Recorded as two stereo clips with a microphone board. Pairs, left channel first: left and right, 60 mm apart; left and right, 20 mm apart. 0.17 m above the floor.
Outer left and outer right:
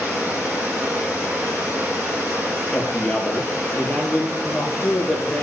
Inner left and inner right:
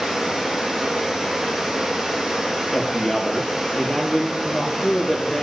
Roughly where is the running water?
Right.